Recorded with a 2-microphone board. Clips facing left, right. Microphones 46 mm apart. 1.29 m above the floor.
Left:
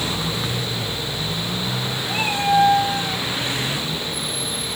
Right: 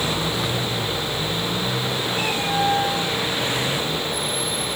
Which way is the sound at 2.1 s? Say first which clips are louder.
Left 8 dB; 40° left (ahead or behind).